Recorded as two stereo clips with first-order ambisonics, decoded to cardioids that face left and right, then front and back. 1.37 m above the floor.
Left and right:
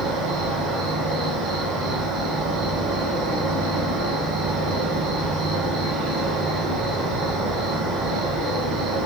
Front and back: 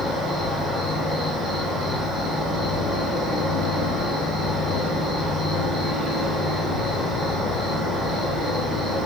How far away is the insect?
About 3.5 m.